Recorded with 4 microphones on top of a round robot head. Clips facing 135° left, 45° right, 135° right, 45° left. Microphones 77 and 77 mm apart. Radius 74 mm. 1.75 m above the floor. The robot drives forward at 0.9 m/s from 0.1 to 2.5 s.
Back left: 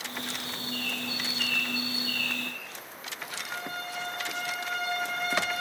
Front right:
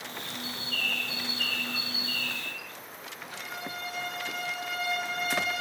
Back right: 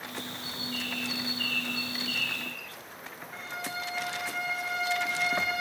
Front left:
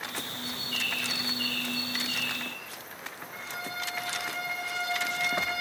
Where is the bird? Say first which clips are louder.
Front right 1 dB, front left 1 dB; 65° right, 2.0 m; by 2.7 s 120° right, 2 m.